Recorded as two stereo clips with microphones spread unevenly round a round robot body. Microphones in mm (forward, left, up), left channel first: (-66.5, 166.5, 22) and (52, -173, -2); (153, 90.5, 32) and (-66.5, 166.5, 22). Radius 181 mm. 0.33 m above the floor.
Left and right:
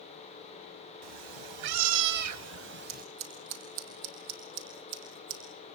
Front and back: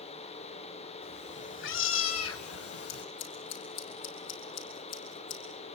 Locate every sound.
1.0 s a cat meowing: 80° right, 1.4 m; by 3.0 s 5° right, 1.2 m
2.9 s scissors: 55° right, 4.5 m